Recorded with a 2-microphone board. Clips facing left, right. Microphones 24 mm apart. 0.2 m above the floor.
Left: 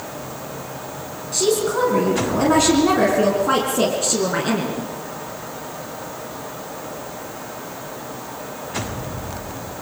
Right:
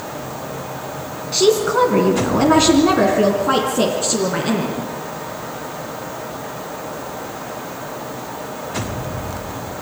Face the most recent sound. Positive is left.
turn(degrees=15)  # may be behind; listen again after turning